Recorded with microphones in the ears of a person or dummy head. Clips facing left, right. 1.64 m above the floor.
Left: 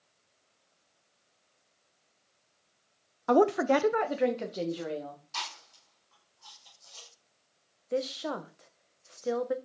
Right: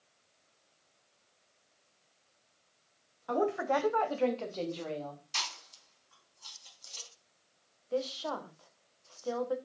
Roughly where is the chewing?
Right.